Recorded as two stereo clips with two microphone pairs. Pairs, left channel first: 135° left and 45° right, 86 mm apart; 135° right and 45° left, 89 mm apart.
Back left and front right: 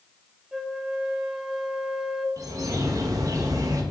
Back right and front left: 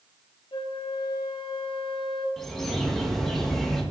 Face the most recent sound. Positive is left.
turn(degrees=-50)